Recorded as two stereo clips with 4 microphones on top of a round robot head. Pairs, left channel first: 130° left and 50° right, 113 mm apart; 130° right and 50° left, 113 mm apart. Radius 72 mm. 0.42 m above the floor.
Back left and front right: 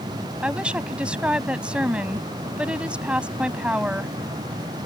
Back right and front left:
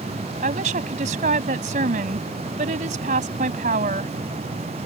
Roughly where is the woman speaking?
Ahead left.